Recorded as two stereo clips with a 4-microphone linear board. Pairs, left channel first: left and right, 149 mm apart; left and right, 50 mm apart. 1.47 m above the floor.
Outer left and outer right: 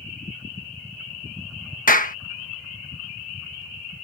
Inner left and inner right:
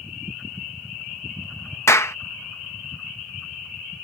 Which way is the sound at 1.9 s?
65° left (ahead or behind).